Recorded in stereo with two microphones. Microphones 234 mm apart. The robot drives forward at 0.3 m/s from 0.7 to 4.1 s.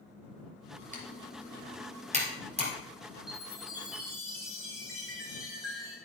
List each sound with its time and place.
0.9 s typing on a keyboard: 30° right (ahead or behind), 2 m; by 2.7 s 25° right (ahead or behind), 2.5 m
3.3 s a chime: centre (ahead or behind), 2.5 m